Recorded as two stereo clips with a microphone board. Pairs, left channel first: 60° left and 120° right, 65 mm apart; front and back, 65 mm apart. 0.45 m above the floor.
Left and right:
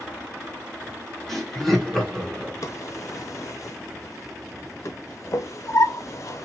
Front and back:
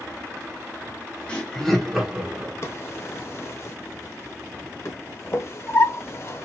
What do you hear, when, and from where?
1.3 s laughter: 15° right, 1.2 m; by 2.5 s 135° left, 1.3 m
2.6 s a drawer: 40° left, 0.7 m